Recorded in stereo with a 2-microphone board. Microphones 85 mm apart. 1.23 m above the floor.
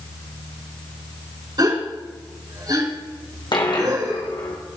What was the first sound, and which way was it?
A gasp, 55° right (ahead or behind).